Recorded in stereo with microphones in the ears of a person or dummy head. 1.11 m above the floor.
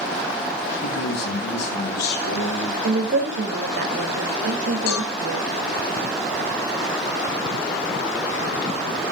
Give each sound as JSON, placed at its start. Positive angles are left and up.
{"t": 0.8, "sound": "a man speaking", "side_deg": 85, "distance_m": 8.0}
{"t": 2.8, "sound": "a woman speaking", "side_deg": -60, "distance_m": 4.0}
{"t": 4.9, "sound": "a cowbell", "side_deg": 85, "distance_m": 6.5}